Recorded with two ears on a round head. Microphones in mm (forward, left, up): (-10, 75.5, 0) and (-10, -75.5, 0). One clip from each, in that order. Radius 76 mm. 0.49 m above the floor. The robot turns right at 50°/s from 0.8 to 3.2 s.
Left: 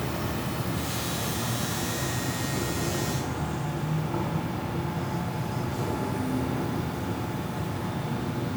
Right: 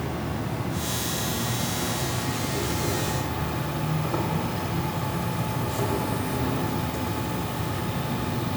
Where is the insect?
125° left, 0.8 m; by 8.6 s 115° right, 0.8 m.